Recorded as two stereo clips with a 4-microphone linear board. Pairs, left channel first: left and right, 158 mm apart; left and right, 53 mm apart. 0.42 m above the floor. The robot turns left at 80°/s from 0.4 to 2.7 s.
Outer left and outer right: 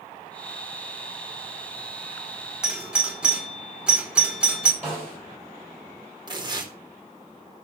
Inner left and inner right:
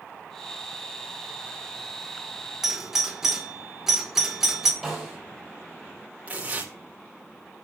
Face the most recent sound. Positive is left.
turn(degrees=-25)  # may be behind; listen again after turning